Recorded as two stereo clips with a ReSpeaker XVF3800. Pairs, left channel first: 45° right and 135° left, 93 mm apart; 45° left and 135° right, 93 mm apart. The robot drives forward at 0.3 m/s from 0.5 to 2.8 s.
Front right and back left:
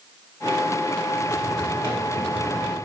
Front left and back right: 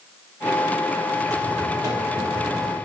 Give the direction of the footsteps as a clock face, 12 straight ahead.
3 o'clock.